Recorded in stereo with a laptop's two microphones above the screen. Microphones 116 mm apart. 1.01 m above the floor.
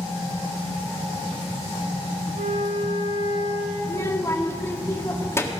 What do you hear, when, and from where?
2.4 s a flute: 70° right (ahead or behind), 3 m
3.8 s a child speaking: 20° left (ahead or behind), 1.6 m